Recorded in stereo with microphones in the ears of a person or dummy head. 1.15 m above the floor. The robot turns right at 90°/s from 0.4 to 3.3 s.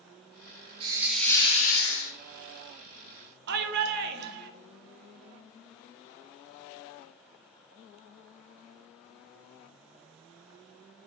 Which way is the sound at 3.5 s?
60° right (ahead or behind).